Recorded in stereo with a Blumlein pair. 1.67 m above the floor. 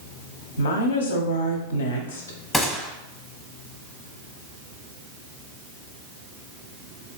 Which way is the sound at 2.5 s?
5° left.